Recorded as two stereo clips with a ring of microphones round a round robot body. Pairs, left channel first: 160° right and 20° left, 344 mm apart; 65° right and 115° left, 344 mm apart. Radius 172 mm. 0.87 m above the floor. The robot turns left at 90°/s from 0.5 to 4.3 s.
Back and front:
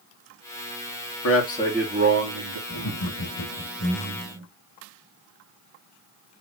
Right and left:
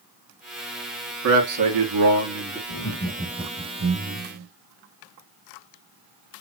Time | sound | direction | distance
1.2 | a man speaking | 160° left | 1.8 m
2.7 | laughter | 105° right | 1.5 m